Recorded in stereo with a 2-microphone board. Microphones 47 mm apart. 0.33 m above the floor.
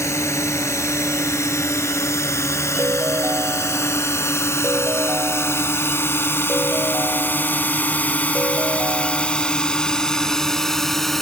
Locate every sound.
0.0 s a drone: 75° left (ahead or behind); by 11.2 s 5° left (ahead or behind)
2.8 s a ringtone: 65° right (ahead or behind)